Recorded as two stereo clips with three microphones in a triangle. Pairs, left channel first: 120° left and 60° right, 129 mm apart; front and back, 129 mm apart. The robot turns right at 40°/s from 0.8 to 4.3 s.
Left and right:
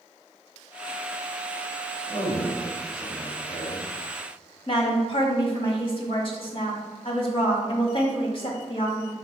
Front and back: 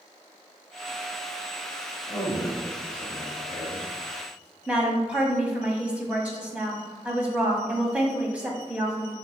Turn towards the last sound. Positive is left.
turn(degrees=100)